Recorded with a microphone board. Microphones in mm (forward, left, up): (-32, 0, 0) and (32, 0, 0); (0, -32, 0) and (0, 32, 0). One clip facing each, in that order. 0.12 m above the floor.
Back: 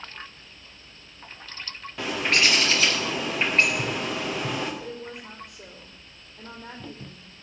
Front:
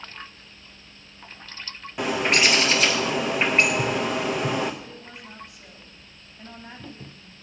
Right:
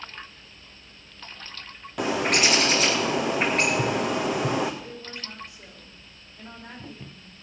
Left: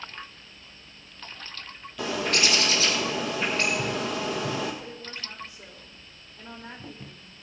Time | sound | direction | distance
2.0 | a bird | 75° right | 2 m
4.8 | a woman speaking | 175° right | 5.5 m